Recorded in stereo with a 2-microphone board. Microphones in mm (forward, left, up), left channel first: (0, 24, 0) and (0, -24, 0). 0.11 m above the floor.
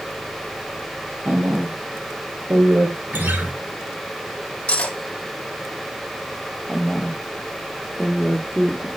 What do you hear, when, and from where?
1.2 s a woman speaking: 40° right (ahead or behind), 3 m; by 3.0 s 60° right (ahead or behind), 4 m
3.1 s a guitar: 45° right (ahead or behind), 2 m
4.7 s cutlery clinking: 25° left (ahead or behind), 2 m
6.7 s a woman speaking: 10° right (ahead or behind), 3 m